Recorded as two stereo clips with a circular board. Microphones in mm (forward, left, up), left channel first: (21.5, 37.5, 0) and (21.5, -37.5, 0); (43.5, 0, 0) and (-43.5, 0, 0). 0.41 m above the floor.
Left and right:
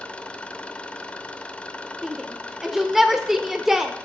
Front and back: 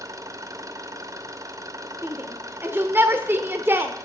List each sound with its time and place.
0.0 s an engine running: 155° left, 0.7 m
2.0 s a shout: 170° right, 0.8 m